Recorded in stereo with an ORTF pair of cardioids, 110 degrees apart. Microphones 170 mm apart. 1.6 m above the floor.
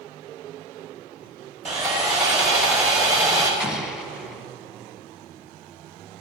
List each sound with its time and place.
1.6 s sawing: 45° right, 4.5 m
3.6 s an explosion: 5° right, 1.2 m